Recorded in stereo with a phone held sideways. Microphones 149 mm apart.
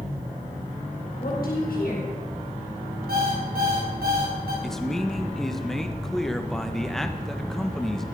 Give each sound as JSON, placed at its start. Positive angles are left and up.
{"t": 1.2, "sound": "a woman speaking", "side_deg": 75, "distance_m": 5.5}
{"t": 3.1, "sound": "an alarm clock", "side_deg": -85, "distance_m": 4.5}
{"t": 4.6, "sound": "a man speaking", "side_deg": 5, "distance_m": 1.2}